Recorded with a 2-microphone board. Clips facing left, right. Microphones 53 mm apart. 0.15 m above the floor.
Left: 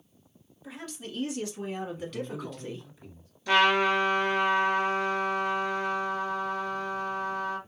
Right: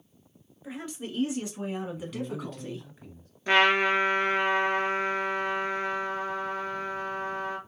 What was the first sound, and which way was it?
A woman speaking, 25° right (ahead or behind).